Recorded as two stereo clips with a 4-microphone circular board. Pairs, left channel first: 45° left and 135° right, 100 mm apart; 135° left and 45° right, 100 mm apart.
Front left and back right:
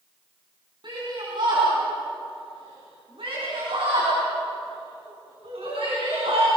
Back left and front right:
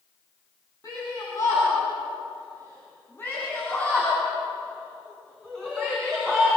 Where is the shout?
170° right, 6.5 m; by 6.5 s 140° right, 6.5 m.